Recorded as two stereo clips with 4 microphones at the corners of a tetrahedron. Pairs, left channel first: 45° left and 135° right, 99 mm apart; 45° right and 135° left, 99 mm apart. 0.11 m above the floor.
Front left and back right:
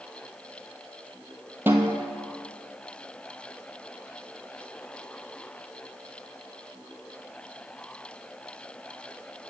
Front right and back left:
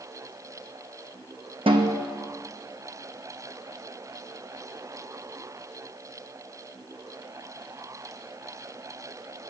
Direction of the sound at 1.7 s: 155° left.